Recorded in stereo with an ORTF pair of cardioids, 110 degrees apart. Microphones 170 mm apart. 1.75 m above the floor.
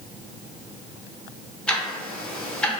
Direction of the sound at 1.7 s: 5° left.